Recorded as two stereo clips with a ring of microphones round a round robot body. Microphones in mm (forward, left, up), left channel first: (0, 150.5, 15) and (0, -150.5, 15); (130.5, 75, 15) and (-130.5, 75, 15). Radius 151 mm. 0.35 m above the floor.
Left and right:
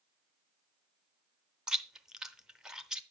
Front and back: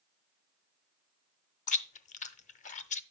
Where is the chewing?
5° right, 0.6 m.